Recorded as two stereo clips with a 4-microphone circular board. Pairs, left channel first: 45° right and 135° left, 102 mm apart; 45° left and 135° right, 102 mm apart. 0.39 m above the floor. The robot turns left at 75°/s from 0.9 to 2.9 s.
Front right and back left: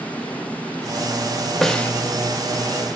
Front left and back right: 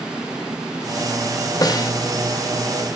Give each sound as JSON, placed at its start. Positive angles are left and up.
{"t": 1.6, "sound": "a snare drum", "azimuth_deg": 45, "distance_m": 1.0}